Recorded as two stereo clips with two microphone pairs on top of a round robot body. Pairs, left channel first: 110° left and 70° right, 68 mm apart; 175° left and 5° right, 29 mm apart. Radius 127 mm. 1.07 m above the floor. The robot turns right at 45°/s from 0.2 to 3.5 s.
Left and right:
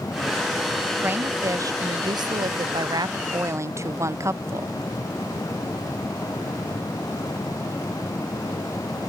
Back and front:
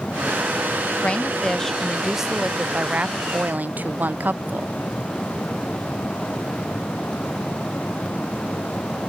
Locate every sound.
1.0 s a woman speaking: 135° right; by 4.7 s 20° right